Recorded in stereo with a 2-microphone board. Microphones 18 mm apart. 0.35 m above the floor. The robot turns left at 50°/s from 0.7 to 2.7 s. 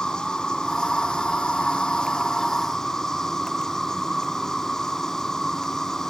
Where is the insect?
125° left, 0.9 m; by 6.1 s 25° left, 0.9 m.